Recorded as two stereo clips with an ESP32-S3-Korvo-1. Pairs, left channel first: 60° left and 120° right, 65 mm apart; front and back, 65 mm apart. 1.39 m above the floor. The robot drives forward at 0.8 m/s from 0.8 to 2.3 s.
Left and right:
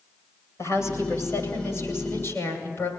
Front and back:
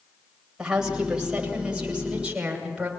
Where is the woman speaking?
100° left, 8.5 m; by 2.9 s 110° left, 8.5 m.